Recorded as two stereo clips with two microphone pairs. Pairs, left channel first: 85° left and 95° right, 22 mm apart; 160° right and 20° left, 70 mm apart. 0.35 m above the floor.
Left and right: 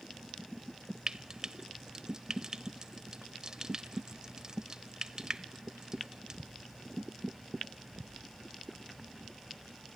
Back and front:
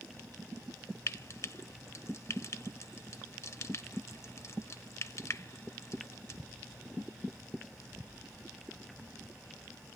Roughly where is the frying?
Behind right.